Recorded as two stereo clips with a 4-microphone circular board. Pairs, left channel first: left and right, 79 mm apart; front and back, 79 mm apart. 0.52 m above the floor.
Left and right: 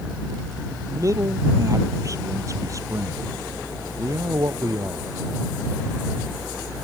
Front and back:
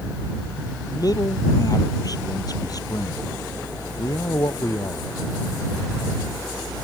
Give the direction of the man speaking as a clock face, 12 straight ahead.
1 o'clock.